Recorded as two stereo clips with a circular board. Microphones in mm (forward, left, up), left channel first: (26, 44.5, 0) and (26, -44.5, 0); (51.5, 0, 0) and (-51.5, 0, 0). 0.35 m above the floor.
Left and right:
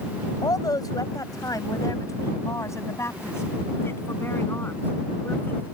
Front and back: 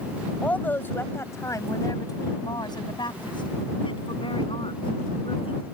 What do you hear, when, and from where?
0.4 s a woman speaking: 75° left; by 5.7 s 20° left